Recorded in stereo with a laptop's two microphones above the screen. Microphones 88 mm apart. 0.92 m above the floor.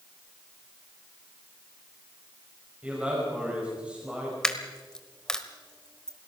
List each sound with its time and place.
2.8 s a man speaking: 10° right (ahead or behind), 5 m
4.4 s a dropped coin: 10° left (ahead or behind), 1.2 m